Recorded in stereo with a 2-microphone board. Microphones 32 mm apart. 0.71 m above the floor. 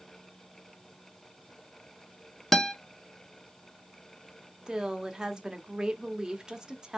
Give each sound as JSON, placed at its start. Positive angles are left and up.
{"t": 2.5, "sound": "a guitar", "side_deg": 10, "distance_m": 0.5}
{"t": 4.7, "sound": "a woman speaking", "side_deg": -20, "distance_m": 0.9}